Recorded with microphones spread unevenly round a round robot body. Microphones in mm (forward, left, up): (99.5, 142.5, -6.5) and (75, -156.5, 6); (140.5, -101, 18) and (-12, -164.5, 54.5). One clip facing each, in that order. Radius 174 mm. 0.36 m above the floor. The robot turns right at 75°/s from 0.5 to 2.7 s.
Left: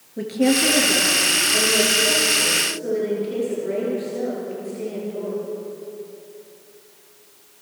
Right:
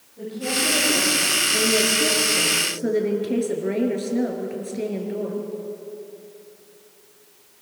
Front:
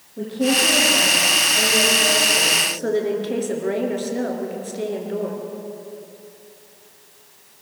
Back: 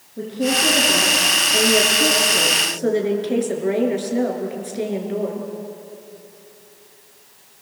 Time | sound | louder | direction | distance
0.2 | a woman speaking | left 10 dB, front 1 dB | 115° left | 5.5 m